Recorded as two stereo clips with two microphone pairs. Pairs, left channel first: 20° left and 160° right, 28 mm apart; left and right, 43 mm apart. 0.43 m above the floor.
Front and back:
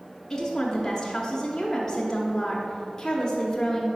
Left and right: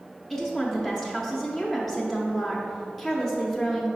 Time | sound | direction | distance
0.3 | a woman speaking | 40° left | 0.7 m